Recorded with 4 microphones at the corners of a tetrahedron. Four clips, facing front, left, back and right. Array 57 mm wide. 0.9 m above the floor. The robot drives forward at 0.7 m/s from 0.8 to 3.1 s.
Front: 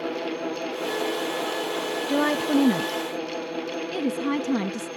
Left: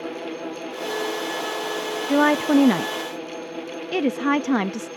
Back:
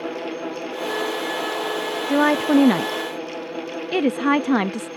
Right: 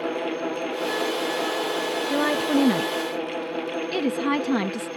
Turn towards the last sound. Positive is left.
turn(degrees=160)